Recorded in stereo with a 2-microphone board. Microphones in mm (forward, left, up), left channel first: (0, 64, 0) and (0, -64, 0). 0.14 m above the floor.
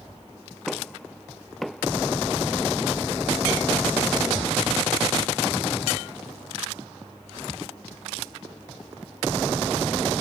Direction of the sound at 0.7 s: Centre (ahead or behind).